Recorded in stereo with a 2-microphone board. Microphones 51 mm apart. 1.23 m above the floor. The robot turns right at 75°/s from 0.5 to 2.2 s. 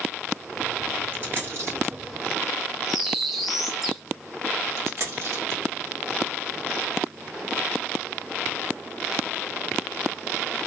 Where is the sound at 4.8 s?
65° right (ahead or behind), 1.6 m.